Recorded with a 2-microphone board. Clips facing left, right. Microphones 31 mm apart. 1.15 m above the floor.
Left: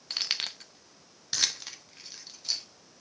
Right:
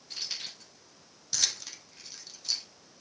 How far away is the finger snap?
I don't hear a finger snap.